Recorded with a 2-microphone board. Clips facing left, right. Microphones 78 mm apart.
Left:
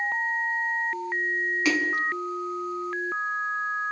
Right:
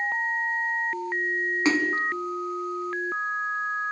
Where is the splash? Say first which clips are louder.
Right 2 dB; 30° right (ahead or behind), 1.9 m.